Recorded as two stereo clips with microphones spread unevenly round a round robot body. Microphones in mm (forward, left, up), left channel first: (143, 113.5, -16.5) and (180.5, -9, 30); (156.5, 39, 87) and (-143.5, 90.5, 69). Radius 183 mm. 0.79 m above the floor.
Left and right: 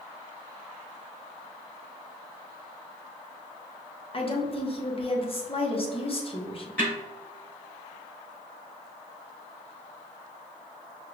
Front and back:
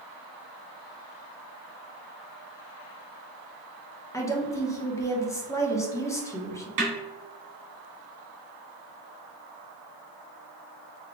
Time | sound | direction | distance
4.1 | a woman speaking | 70° left | 1.4 m
6.8 | a snare drum | 175° right | 2 m